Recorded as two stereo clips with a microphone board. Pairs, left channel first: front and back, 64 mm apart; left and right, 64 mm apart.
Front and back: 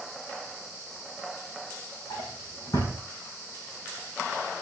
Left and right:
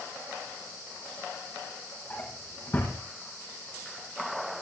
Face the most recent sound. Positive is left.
turn(degrees=35)